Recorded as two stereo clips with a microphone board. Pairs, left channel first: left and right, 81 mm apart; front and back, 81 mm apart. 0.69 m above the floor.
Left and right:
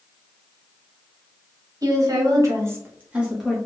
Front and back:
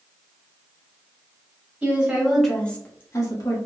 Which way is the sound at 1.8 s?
110° right.